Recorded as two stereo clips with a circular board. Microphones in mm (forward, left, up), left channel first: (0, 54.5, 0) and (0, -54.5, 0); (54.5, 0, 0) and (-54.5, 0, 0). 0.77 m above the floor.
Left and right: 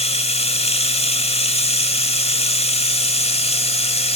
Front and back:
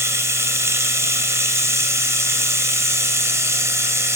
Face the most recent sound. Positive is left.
turn(degrees=115)